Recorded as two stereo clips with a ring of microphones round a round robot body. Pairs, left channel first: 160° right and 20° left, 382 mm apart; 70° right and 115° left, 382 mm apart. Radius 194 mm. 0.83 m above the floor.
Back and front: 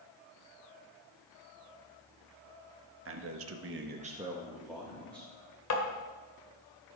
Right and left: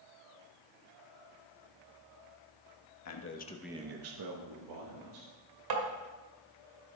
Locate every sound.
3.0 s a man speaking: 30° right, 1.4 m; by 5.3 s 115° left, 2.5 m
5.7 s tapping: 150° left, 2.0 m